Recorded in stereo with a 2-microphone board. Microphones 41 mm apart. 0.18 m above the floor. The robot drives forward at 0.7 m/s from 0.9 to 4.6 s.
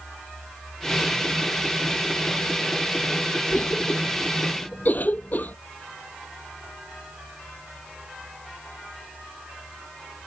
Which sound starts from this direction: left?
A cough, at 3.5 s.